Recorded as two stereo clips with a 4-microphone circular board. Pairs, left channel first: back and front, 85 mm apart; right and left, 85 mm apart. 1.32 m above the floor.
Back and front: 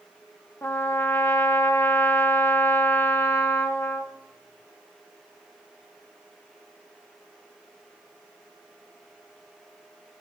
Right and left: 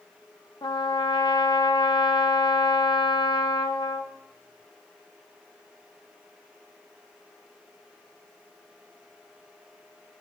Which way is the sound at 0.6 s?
120° right.